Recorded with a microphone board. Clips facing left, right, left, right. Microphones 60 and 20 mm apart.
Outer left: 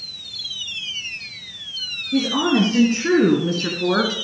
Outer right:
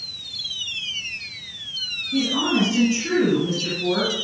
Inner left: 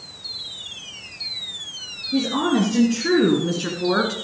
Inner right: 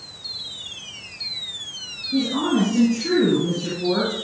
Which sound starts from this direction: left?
A woman speaking, at 2.1 s.